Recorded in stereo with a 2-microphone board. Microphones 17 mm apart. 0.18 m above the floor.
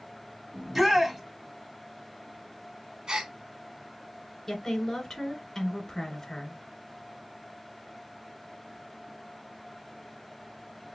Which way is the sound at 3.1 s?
40° right (ahead or behind).